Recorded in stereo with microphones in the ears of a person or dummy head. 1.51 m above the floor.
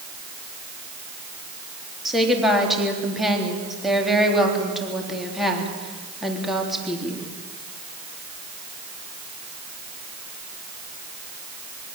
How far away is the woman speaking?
About 3.5 m.